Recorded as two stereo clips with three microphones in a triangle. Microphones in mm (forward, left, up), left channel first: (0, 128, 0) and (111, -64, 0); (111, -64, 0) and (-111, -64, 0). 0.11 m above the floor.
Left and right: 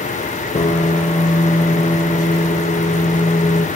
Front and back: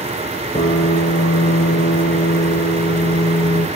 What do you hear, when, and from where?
0.6 s a piano: 55° left, 2.5 m